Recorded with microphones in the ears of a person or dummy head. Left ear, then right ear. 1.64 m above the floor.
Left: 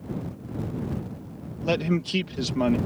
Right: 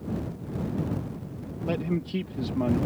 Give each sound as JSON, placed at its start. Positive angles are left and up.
{"t": 1.6, "sound": "a man speaking", "side_deg": 50}